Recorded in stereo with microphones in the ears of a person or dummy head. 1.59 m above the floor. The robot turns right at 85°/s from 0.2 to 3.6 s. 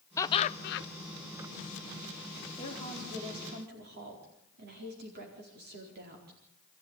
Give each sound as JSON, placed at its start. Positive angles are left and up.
{"t": 0.2, "sound": "laughter", "azimuth_deg": 15, "distance_m": 1.0}
{"t": 2.6, "sound": "a woman speaking", "azimuth_deg": 145, "distance_m": 4.5}